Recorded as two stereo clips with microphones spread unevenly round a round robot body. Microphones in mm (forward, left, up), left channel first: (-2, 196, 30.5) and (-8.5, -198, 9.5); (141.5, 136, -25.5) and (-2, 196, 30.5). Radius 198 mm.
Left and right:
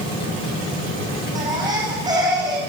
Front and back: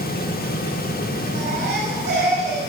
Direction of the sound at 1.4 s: 170° right.